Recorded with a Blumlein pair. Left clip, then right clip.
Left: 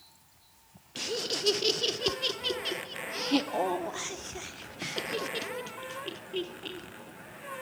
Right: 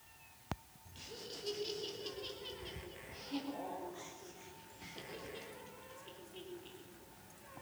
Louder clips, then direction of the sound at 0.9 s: Left 16 dB; 40° left.